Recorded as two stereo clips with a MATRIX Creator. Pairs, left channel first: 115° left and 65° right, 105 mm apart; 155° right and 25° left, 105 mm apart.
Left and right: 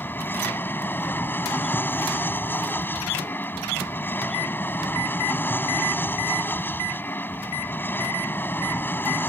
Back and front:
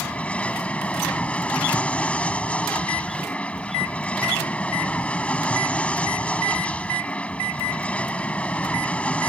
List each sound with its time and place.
0.0 s an aircraft: 145° left